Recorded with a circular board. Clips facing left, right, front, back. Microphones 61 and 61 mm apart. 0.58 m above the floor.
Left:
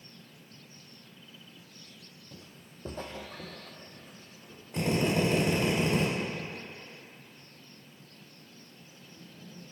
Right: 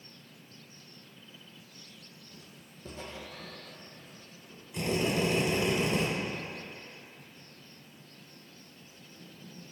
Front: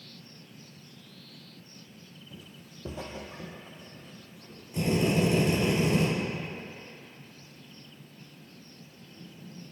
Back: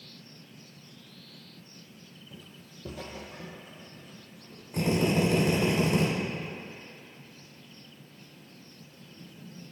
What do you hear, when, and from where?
2.3 s footsteps: 80° left, 0.6 m; by 4.6 s 50° left, 2 m
4.7 s a drill: 140° left, 2 m